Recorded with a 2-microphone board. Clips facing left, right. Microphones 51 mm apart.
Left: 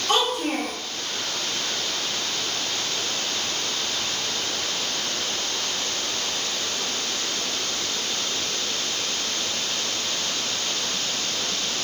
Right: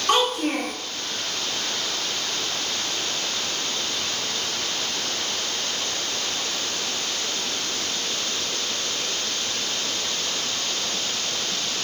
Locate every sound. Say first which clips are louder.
0.1 s a child speaking: right 2 dB; 65° right (ahead or behind), 1.6 m